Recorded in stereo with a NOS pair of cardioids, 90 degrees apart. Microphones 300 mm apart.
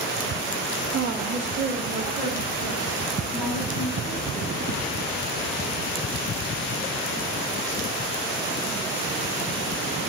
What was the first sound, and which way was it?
A woman speaking, 50° right.